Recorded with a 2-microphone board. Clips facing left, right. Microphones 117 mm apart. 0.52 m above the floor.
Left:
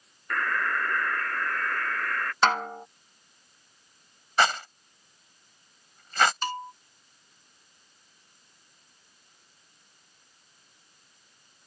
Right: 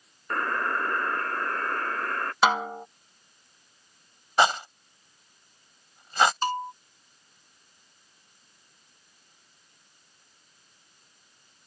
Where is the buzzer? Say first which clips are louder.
Right 1 dB; 30° right (ahead or behind).